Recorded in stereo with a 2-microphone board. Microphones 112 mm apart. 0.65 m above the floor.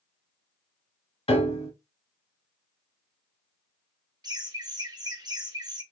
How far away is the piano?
About 1.1 m.